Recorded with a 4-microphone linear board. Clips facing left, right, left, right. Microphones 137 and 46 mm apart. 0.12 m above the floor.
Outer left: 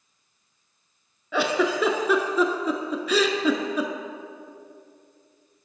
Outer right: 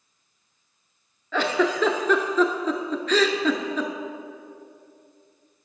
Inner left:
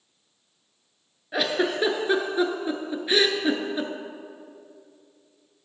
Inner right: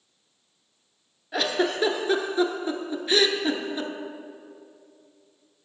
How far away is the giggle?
About 0.6 m.